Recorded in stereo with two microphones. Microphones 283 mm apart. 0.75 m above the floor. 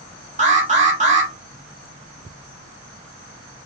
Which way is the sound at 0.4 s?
25° right (ahead or behind).